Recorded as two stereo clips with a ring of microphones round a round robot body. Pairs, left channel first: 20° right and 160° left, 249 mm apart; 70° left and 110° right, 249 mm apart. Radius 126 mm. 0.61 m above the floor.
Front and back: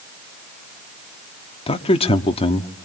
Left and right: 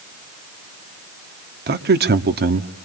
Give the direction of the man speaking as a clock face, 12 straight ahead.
3 o'clock.